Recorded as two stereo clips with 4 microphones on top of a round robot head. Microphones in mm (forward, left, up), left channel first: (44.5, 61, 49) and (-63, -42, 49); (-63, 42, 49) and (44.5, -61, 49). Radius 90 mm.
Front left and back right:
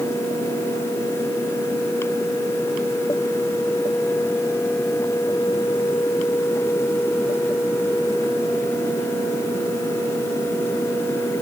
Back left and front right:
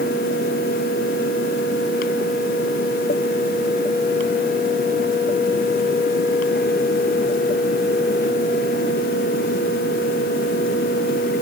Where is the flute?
I don't hear a flute.